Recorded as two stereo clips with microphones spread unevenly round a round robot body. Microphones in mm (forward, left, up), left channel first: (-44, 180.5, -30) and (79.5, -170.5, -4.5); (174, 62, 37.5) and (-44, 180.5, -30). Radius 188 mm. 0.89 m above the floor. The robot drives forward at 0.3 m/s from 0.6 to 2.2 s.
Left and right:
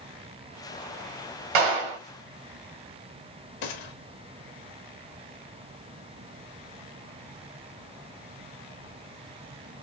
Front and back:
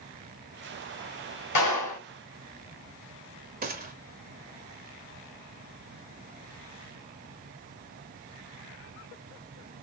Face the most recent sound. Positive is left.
turn(degrees=105)